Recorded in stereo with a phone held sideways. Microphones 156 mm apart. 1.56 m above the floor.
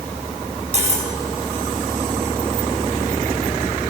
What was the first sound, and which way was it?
Cutlery clinking, 45° right (ahead or behind).